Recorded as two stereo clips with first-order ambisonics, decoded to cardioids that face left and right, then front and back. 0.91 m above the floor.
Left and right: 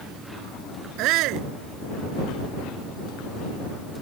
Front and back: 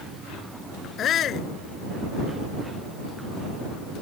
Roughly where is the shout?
Ahead right.